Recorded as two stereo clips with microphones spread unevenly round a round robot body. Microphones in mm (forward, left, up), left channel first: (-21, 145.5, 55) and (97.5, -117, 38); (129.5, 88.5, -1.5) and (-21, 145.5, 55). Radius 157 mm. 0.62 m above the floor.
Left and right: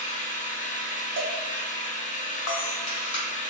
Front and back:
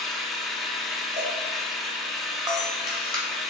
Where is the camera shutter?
90° left, 1.8 m.